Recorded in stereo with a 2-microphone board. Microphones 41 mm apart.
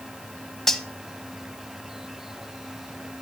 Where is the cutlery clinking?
5° left (ahead or behind), 0.9 m.